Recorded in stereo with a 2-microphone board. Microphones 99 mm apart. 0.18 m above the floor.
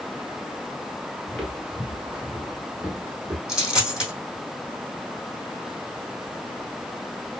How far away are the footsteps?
About 1.4 m.